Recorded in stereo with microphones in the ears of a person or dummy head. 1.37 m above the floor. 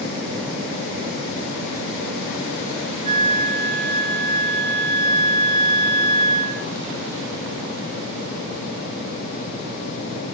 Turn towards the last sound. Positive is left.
turn(degrees=-30)  # may be behind; listen again after turning